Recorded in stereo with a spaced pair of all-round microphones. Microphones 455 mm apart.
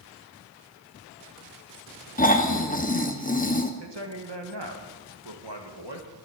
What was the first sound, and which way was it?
Snoring, 20° left (ahead or behind).